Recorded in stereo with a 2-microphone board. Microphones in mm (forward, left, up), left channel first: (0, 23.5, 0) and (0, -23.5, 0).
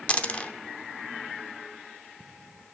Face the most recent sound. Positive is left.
turn(degrees=25)  # may be behind; listen again after turning